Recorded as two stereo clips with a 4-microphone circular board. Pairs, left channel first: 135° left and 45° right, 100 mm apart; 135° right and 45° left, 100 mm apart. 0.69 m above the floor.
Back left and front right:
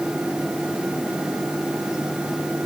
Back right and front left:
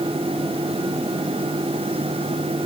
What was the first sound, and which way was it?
Only background noise.